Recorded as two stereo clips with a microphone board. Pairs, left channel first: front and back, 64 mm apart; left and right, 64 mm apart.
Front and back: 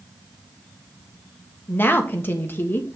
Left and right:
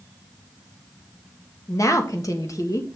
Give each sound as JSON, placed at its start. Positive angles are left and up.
{"t": 1.7, "sound": "a woman speaking", "azimuth_deg": 55, "distance_m": 1.4}